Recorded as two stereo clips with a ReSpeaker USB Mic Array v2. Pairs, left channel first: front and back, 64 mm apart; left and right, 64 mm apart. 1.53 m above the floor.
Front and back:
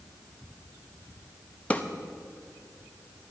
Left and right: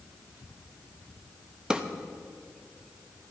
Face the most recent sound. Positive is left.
turn(degrees=-30)